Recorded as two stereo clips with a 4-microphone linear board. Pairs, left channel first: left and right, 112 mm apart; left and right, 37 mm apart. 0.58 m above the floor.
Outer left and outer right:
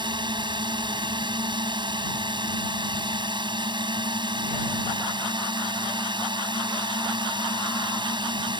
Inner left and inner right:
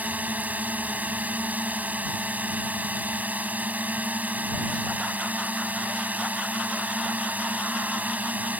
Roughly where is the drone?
Right.